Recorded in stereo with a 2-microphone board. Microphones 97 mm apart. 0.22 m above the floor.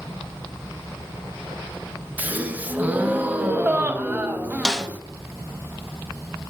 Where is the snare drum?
5° left (ahead or behind), 0.5 m.